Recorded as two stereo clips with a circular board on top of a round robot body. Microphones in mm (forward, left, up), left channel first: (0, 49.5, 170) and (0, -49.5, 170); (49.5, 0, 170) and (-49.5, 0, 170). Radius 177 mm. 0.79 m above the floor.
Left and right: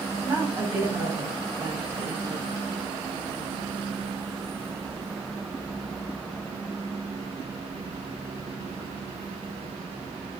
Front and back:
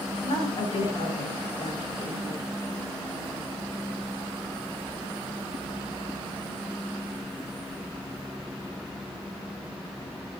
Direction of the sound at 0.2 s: 20° right.